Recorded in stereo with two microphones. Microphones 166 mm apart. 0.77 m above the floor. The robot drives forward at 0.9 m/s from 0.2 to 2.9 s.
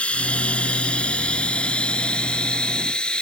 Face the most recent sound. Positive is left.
turn(degrees=5)  # may be behind; listen again after turning